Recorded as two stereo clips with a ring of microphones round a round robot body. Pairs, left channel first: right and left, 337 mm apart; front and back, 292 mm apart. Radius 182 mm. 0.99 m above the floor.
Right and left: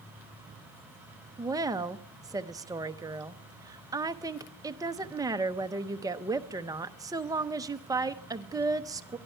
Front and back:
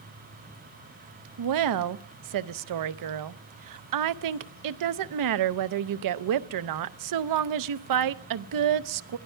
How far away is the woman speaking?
About 0.6 m.